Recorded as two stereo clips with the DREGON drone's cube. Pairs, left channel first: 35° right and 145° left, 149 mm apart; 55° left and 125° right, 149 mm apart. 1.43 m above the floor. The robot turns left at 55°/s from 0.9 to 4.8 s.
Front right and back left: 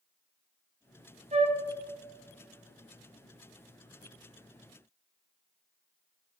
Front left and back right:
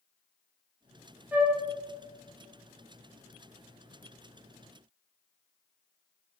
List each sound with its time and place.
1.3 s a flute: 160° left, 1.4 m; by 1.6 s 150° left, 1.4 m